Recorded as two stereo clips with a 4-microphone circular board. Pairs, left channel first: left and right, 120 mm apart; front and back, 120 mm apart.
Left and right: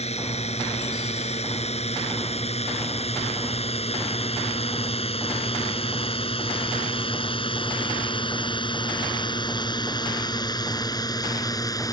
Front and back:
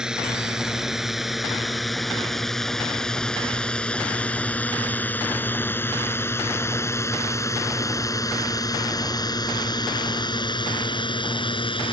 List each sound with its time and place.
0.0 s a drone: 95° left; by 11.9 s 35° left